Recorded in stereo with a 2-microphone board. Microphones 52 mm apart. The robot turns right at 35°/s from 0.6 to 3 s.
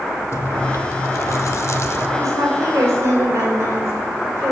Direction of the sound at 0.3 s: 65° left.